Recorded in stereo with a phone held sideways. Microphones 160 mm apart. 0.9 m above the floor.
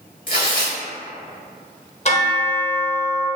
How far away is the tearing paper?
About 1.3 m.